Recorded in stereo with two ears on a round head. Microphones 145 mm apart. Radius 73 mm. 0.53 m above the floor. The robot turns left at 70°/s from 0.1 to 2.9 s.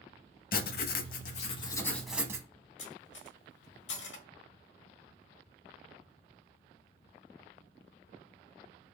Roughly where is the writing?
Left.